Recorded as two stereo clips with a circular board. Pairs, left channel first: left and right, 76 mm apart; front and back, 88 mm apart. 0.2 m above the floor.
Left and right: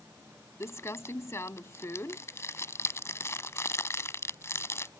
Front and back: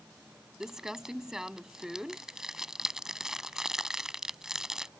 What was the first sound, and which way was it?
Crumpling, 100° left.